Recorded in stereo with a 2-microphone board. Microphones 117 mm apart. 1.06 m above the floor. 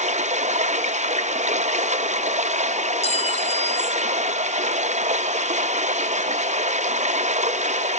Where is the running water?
80° right, 0.7 m.